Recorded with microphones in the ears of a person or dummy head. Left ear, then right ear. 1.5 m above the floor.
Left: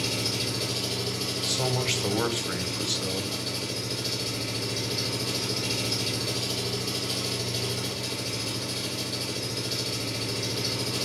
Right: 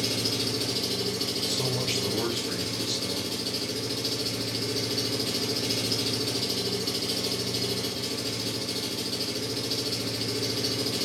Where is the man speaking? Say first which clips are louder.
Left 4 dB; 25° left (ahead or behind), 0.8 m.